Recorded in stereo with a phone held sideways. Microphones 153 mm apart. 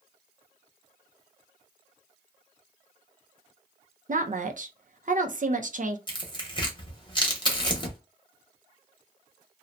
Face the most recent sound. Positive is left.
turn(degrees=30)  # may be behind; listen again after turning